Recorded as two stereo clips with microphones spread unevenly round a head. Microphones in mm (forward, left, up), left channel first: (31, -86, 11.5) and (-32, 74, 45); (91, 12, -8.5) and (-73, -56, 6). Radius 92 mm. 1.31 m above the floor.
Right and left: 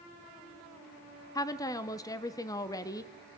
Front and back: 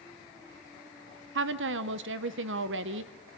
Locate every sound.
1.4 s a woman speaking: 140° right, 0.8 m